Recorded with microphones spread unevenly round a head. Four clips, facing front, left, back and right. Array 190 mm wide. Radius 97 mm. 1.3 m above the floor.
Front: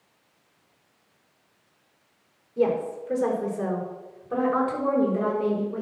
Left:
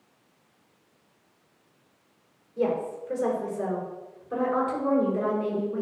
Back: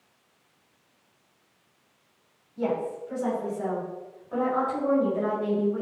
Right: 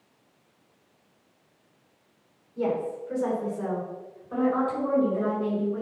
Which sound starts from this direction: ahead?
A woman speaking, at 2.6 s.